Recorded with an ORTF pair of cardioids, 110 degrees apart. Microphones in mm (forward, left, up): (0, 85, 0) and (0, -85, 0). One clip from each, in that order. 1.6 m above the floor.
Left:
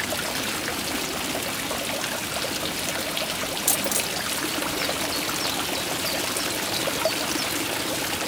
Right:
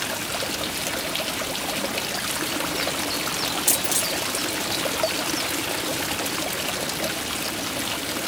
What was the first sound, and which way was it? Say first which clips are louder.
A dropped coin: right 1 dB; straight ahead.